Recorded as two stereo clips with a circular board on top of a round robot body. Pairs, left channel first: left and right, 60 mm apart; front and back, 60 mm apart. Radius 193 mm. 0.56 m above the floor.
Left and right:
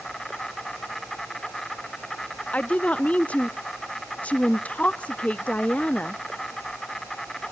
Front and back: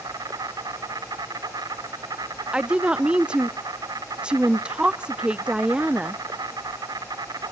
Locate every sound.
0.0 s an insect: 175° left, 1.1 m
2.5 s a woman speaking: 125° left, 0.6 m